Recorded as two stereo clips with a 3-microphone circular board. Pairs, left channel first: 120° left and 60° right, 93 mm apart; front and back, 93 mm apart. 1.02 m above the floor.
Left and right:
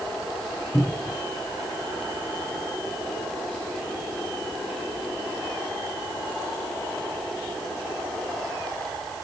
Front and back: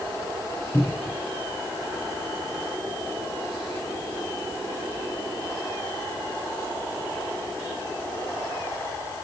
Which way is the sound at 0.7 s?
60° left.